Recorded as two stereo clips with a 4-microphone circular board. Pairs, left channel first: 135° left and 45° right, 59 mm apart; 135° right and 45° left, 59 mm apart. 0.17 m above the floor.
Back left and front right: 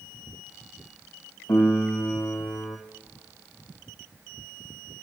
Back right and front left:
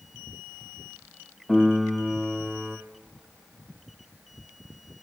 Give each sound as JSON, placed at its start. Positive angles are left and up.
{"t": 1.5, "sound": "a piano", "azimuth_deg": 150, "distance_m": 2.5}